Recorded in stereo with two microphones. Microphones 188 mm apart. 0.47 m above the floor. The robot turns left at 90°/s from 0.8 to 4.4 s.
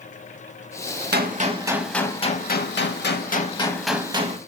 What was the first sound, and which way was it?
A gunshot, 110° right.